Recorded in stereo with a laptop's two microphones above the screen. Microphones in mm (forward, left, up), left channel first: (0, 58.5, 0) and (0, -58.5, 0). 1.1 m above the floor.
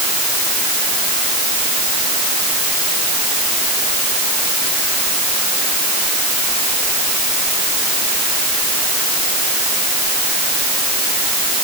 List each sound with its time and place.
Only background noise.